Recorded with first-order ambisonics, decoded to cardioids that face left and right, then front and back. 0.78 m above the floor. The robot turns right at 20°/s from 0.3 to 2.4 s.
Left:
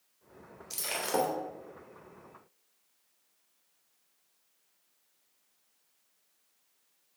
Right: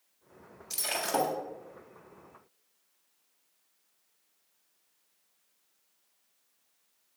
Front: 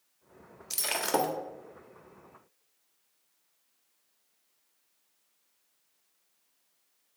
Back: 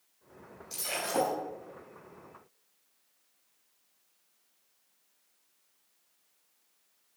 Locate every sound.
0.7 s breaking glass: 5° right, 1.3 m; by 1.3 s 10° left, 1.3 m